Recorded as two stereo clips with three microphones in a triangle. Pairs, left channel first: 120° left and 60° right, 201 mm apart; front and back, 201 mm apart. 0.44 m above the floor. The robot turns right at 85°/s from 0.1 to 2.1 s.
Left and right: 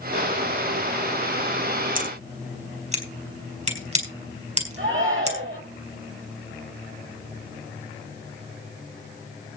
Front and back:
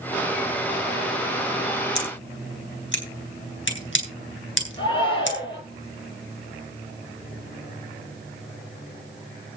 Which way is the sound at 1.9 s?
20° right.